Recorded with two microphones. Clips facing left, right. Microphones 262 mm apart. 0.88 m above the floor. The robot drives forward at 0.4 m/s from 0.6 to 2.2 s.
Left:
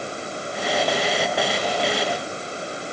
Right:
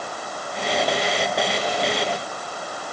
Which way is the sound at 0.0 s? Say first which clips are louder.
Left 3 dB; 25° left (ahead or behind).